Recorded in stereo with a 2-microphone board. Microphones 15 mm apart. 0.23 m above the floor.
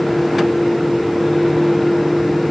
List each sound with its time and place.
Only background noise.